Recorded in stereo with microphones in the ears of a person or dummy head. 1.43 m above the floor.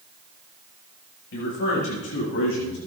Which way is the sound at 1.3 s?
70° left (ahead or behind).